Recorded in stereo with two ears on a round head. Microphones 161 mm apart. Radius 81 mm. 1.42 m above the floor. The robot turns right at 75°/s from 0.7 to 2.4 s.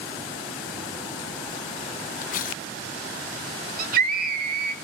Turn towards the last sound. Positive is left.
turn(degrees=-55)  # may be behind; listen again after turning